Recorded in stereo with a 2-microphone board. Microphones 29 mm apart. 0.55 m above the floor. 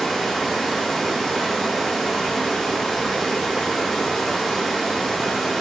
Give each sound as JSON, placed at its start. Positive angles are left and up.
{"t": 0.0, "sound": "running water", "side_deg": 0, "distance_m": 6.0}